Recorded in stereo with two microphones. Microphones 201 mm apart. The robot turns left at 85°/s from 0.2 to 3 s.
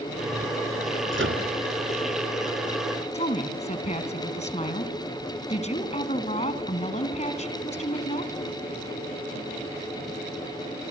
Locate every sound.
1.1 s a microwave: 65° right (ahead or behind), 2.5 m; by 1.4 s 75° right (ahead or behind), 2.5 m
3.1 s a woman speaking: 30° left (ahead or behind), 2.5 m